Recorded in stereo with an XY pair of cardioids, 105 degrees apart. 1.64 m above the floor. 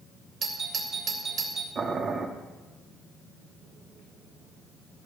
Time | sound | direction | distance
0.4 | a doorbell | 50° right | 2 m
1.8 | boiling | 45° right | 1.5 m